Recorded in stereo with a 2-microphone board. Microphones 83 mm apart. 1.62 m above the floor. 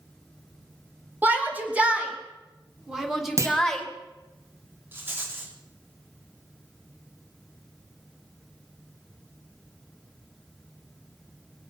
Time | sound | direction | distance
1.2 | a shout | 20° right (ahead or behind) | 3 m
3.4 | a clunk | 35° right (ahead or behind) | 1.6 m
4.9 | a rattle | 30° right (ahead or behind) | 3 m